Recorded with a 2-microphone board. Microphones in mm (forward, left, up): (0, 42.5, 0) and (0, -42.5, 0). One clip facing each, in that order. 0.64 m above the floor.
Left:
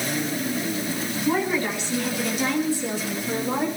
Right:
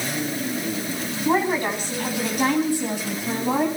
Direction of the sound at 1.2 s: 40° right (ahead or behind).